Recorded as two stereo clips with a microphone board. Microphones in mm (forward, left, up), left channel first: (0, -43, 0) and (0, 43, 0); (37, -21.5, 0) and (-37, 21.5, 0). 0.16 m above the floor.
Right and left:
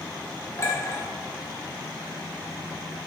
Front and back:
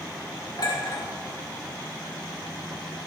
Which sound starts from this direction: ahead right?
A clink, at 0.6 s.